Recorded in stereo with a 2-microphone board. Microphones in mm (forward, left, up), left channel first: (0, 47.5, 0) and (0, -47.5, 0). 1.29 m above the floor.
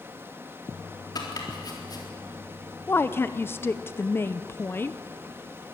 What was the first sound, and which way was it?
Running water, 25° right (ahead or behind).